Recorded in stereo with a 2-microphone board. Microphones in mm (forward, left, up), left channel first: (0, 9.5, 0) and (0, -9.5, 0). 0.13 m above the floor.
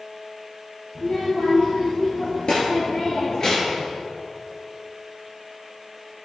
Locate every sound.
0.9 s a child speaking: 55° left (ahead or behind), 3.5 m; by 3.9 s 20° left (ahead or behind), 2 m